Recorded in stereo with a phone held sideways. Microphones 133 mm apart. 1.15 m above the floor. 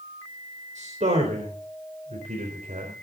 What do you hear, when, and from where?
0.8 s a man speaking: 65° right (ahead or behind), 4 m